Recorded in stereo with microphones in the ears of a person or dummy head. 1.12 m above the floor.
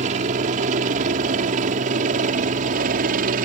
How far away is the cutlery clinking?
I don't hear cutlery clinking.